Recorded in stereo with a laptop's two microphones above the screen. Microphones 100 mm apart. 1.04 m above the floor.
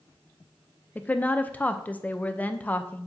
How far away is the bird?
No bird in this recording.